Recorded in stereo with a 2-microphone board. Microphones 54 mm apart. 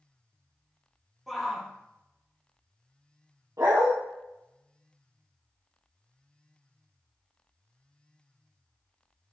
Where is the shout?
5° right (ahead or behind), 3.5 m.